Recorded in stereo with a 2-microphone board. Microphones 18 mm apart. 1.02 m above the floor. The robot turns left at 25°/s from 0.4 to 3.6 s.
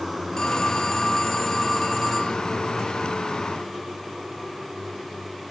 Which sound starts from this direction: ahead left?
A phone ringing, at 0.4 s.